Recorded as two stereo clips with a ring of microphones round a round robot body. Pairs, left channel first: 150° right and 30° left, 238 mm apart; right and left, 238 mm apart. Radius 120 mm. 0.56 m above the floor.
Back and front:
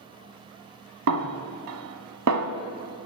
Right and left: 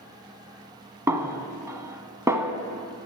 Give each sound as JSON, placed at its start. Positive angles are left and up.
{"t": 1.1, "sound": "a snare drum", "azimuth_deg": 10, "distance_m": 0.8}